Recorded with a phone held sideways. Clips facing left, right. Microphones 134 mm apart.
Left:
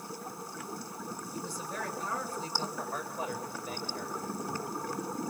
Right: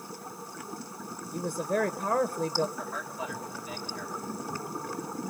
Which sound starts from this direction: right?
A woman speaking, at 1.3 s.